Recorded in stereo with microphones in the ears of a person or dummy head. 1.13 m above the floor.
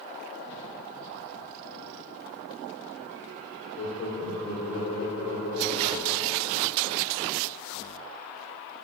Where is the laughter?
40° left (ahead or behind), 0.6 m; by 6.4 s 45° right (ahead or behind), 1.2 m.